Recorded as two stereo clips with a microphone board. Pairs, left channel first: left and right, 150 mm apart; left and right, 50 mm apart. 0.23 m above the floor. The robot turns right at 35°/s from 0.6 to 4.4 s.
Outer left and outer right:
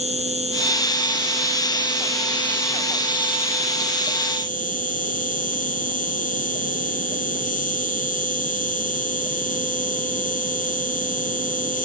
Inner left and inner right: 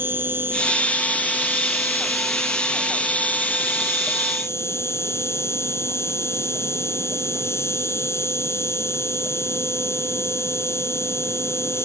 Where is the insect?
55° right; by 11.8 s 80° left.